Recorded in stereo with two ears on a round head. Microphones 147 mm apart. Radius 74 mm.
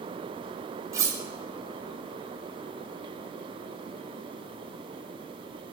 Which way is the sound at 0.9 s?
20° right (ahead or behind).